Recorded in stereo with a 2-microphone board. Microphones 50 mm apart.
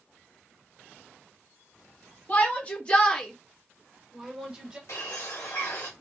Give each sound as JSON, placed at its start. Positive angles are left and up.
{"t": 2.3, "sound": "a shout", "side_deg": 35, "distance_m": 1.4}
{"t": 4.9, "sound": "a bird", "side_deg": 80, "distance_m": 1.4}